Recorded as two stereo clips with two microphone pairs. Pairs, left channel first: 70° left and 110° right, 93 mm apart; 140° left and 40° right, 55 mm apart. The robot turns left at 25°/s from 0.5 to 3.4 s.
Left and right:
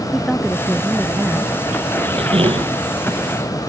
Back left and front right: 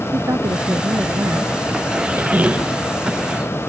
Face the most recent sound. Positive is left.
turn(degrees=-125)